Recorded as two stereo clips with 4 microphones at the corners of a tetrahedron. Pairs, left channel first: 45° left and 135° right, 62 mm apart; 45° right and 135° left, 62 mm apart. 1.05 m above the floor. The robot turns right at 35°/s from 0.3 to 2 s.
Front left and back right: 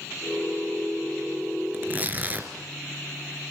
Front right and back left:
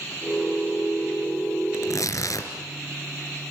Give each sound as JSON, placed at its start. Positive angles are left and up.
{"t": 1.7, "sound": "tearing paper", "azimuth_deg": -80, "distance_m": 3.5}